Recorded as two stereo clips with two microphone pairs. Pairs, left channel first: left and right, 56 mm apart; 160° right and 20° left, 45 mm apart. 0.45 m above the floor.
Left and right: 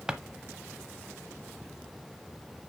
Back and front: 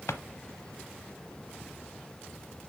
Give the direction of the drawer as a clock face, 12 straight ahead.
5 o'clock.